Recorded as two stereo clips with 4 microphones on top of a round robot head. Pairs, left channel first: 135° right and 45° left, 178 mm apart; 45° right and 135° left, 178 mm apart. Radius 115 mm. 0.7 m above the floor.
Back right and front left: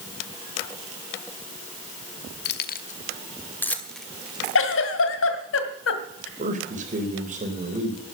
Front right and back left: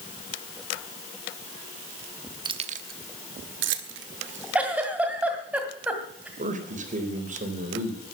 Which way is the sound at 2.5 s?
160° right.